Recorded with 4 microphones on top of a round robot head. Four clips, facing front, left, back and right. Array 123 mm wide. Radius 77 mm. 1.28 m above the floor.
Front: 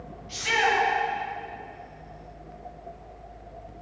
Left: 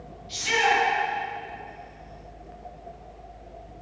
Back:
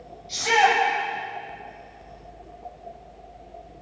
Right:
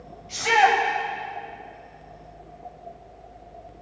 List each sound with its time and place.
0.3 s a shout: 120° right, 8 m